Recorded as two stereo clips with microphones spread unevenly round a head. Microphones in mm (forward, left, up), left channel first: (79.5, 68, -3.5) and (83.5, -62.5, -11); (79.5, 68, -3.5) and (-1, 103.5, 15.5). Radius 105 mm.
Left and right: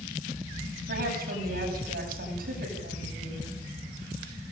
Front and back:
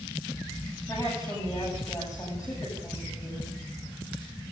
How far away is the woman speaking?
About 9.5 m.